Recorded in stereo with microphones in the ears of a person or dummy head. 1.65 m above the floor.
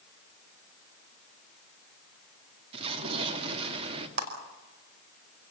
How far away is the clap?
About 5 m.